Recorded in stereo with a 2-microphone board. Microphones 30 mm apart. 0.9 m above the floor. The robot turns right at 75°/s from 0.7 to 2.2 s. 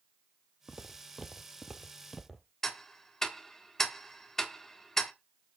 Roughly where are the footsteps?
Right.